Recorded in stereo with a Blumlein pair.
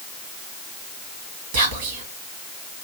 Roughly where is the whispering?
Ahead right.